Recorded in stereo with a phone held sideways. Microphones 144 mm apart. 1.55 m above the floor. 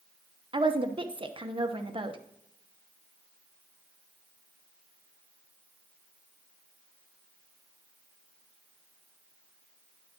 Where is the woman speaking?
35° right (ahead or behind), 0.9 m.